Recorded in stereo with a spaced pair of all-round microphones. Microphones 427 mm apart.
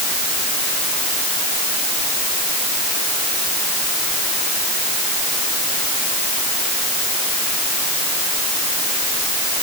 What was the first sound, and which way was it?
Only background noise.